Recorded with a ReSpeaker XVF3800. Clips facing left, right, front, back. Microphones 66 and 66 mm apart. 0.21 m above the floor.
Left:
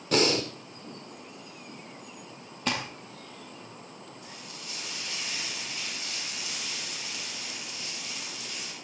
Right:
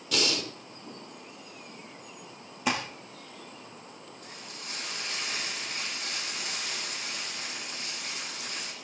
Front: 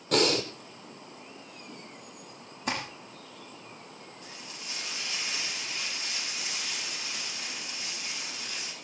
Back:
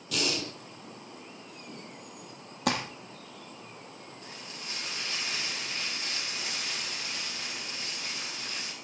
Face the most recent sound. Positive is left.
turn(degrees=-130)